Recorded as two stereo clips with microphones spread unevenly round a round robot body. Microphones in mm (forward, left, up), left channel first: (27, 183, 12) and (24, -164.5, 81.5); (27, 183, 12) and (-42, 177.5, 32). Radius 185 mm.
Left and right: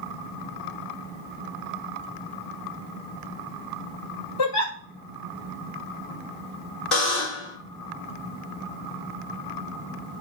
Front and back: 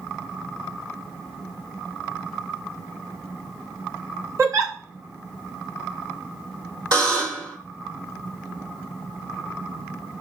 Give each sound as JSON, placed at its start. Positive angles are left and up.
{"t": 4.4, "sound": "a giggle", "azimuth_deg": 135, "distance_m": 1.3}
{"t": 6.9, "sound": "a buzzer", "azimuth_deg": 175, "distance_m": 2.5}